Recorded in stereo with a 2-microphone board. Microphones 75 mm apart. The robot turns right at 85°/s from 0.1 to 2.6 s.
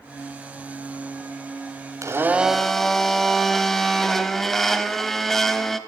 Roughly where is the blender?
Ahead right.